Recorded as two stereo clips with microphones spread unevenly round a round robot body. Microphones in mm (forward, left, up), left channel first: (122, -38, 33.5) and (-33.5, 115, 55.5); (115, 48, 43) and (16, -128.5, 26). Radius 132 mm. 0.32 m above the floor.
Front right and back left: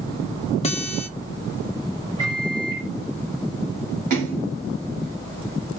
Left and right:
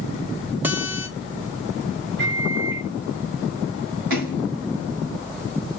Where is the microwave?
145° right, 2 m.